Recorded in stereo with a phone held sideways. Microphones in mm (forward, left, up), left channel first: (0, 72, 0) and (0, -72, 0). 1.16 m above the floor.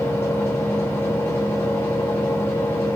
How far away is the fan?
About 0.8 m.